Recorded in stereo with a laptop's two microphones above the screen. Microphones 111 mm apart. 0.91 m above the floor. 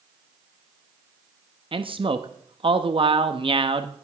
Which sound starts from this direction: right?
A man speaking, at 1.7 s.